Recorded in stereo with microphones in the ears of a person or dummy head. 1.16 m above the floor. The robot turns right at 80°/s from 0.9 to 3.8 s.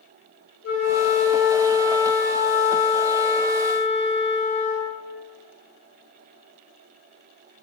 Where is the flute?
85° left, 0.9 m; by 5.0 s 45° right, 0.9 m.